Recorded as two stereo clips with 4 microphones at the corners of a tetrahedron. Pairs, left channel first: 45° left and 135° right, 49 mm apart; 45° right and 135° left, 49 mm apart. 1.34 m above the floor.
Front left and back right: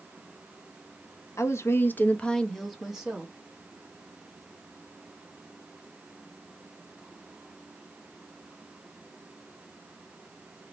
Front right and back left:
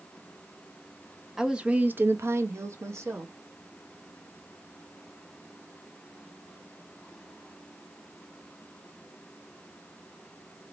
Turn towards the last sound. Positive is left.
turn(degrees=155)